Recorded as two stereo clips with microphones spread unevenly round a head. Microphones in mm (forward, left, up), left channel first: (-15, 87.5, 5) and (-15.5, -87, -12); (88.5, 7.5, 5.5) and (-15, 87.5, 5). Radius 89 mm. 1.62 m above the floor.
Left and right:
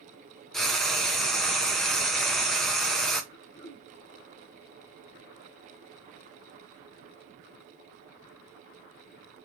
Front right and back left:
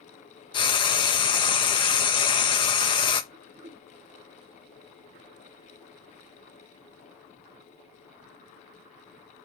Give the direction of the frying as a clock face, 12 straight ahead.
12 o'clock.